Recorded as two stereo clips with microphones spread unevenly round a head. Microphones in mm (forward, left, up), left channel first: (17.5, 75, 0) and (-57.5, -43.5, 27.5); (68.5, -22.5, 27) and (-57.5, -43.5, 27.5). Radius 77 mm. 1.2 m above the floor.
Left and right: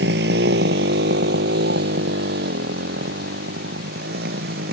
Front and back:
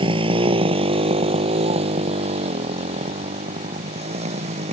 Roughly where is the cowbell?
I don't hear a cowbell.